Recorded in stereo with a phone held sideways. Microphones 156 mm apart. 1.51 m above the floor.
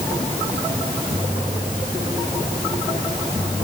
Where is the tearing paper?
No tearing paper in this recording.